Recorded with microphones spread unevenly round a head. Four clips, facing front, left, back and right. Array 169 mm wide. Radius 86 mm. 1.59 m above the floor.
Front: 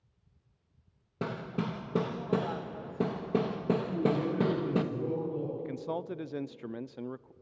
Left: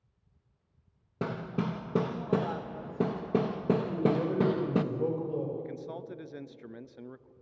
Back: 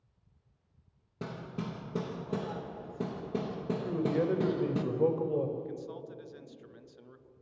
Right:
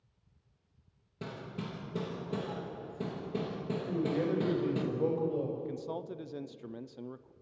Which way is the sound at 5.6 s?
5° right.